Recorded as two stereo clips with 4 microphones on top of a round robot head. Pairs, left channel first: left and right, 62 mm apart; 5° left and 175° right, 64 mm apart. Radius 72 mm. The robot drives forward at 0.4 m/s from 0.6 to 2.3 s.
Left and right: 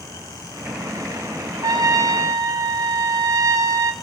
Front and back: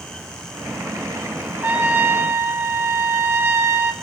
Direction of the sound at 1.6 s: 110° right.